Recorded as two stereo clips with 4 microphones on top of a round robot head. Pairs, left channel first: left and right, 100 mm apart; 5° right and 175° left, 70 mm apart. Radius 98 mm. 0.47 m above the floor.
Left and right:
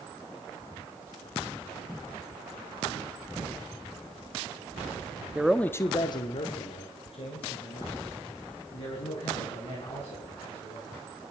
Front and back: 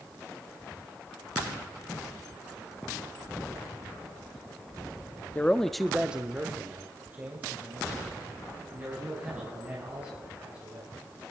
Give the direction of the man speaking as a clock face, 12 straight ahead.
1 o'clock.